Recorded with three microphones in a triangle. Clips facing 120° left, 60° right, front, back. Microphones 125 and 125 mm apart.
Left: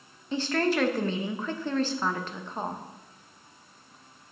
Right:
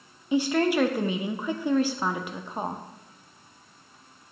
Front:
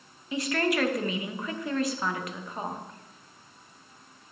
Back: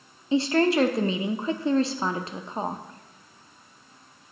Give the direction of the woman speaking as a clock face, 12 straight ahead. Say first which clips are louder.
Right 4 dB, back 6 dB; 4 o'clock.